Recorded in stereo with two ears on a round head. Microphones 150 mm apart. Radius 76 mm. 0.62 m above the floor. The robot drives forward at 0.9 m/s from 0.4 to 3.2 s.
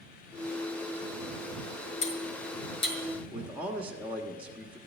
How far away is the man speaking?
About 1.3 m.